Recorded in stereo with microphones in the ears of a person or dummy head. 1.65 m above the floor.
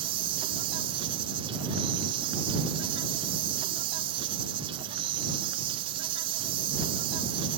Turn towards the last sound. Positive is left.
turn(degrees=-30)  # may be behind; listen again after turning